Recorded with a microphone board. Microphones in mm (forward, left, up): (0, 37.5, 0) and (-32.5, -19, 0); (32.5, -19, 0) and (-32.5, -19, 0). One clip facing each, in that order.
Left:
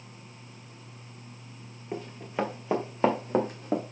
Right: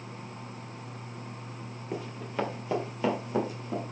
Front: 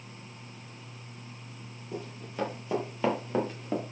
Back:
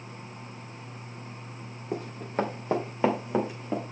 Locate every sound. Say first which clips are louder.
1.9 s running footsteps: left 1 dB, back 8 dB; 145° left, 2.5 m; by 3.8 s 90° left, 2 m